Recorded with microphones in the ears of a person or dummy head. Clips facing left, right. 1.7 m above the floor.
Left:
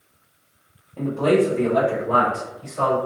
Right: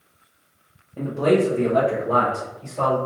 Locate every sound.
1.0 s a man speaking: 20° right (ahead or behind), 0.8 m; by 3.0 s 15° right (ahead or behind), 2.0 m